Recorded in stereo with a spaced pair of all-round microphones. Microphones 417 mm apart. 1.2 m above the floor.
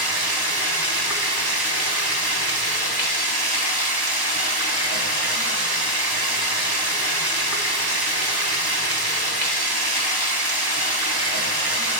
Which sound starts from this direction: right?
Running water, at 0.0 s.